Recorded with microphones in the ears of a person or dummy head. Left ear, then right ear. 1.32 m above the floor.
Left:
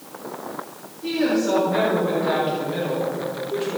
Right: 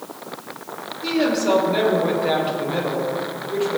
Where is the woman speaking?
35° right (ahead or behind), 5 m; by 3.8 s 5° right (ahead or behind), 4 m.